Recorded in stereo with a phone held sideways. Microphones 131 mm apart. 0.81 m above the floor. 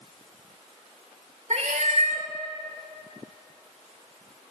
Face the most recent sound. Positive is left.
turn(degrees=-60)  # may be behind; listen again after turning